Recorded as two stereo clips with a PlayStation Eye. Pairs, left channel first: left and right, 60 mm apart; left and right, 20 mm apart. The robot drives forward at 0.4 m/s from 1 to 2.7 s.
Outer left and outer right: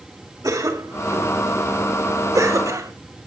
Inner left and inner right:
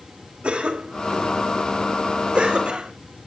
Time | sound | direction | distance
0.4 | a cough | 80° right | 3 m